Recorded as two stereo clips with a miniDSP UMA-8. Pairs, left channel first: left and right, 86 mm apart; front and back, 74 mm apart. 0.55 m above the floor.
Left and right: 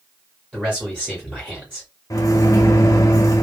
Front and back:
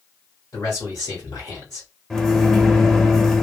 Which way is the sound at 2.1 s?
85° left.